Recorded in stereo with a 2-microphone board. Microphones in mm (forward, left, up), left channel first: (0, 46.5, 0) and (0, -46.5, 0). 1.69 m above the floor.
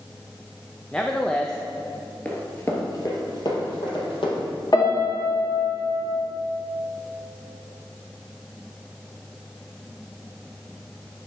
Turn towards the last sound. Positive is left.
turn(degrees=40)  # may be behind; listen again after turning